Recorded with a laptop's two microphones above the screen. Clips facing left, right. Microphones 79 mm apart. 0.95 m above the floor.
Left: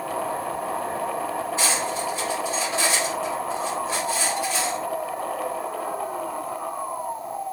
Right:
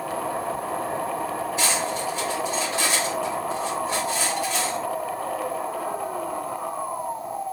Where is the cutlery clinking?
35° left (ahead or behind), 1.8 m.